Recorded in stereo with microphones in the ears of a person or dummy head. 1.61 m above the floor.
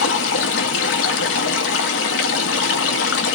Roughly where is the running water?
Left.